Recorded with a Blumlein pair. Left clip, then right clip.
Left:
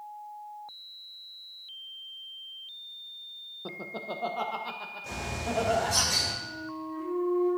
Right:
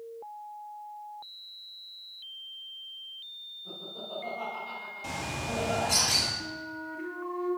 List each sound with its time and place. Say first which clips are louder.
3.6 s laughter: left 6 dB; 40° left, 1.2 m; by 6.0 s 20° left, 3 m
5.0 s a bird: even; 65° right, 5.5 m
6.4 s a flute: even; 55° right, 5.5 m